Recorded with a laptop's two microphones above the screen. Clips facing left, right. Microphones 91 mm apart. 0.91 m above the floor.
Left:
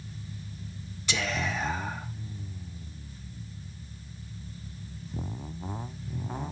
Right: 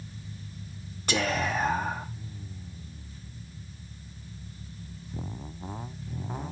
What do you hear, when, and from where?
1.1 s whispering: 45° right (ahead or behind), 1.2 m